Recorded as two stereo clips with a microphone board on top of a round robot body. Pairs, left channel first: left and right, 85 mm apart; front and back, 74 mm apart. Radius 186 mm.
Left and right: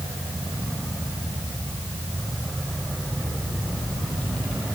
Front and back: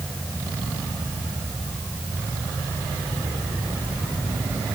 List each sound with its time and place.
Only background noise.